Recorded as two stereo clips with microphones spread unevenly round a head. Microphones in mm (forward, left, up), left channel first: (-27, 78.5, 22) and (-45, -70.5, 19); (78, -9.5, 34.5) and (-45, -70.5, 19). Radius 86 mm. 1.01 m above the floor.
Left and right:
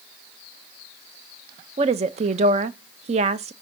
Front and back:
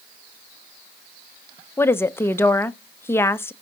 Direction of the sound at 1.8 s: 50° right.